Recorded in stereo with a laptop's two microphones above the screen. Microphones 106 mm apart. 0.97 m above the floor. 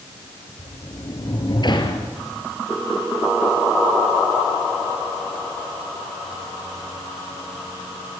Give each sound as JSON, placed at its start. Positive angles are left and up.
{"t": 0.6, "sound": "a sliding door", "side_deg": 45, "distance_m": 3.5}